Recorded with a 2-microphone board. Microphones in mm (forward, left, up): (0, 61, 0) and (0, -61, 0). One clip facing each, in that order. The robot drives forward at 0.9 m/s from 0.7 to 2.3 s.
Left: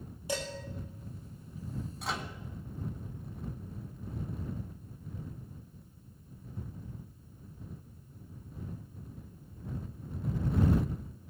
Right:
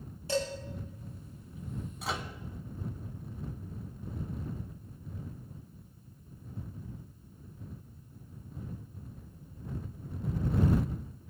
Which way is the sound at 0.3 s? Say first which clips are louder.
Right 5 dB; 15° left (ahead or behind).